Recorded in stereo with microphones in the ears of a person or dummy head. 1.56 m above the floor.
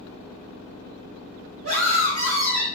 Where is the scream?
55° right (ahead or behind), 1.2 m; by 2.7 s 20° right (ahead or behind), 0.7 m.